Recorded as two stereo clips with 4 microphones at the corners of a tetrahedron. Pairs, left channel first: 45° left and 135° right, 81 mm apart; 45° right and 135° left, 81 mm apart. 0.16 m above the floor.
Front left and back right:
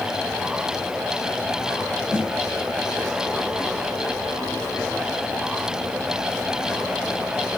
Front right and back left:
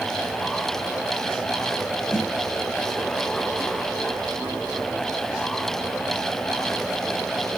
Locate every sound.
2.1 s a snare drum: 95° left, 5 m